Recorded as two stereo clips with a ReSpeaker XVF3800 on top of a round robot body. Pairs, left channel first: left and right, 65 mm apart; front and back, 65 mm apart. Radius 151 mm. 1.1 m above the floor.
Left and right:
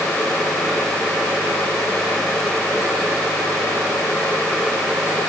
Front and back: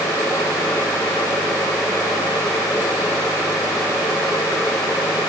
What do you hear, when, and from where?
Only background noise.